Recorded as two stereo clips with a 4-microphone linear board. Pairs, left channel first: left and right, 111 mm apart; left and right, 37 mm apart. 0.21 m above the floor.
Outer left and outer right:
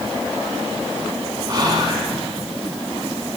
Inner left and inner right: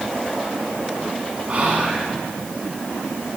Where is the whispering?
40° right (ahead or behind), 1.9 m.